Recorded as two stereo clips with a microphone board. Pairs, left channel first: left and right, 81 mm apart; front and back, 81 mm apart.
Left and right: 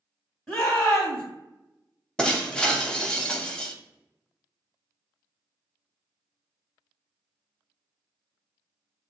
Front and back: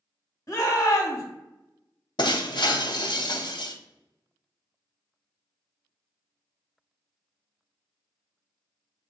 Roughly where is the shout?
Ahead left.